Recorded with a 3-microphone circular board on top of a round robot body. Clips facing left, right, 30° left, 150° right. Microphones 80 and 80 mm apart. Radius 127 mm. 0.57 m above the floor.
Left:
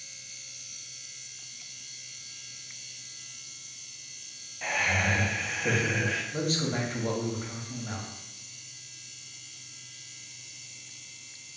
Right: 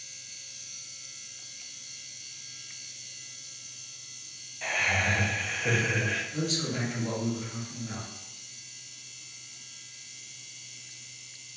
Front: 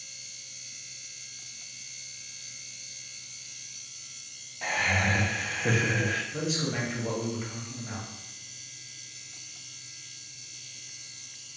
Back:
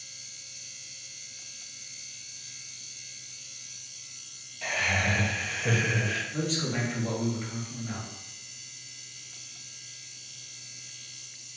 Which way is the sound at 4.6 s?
15° left.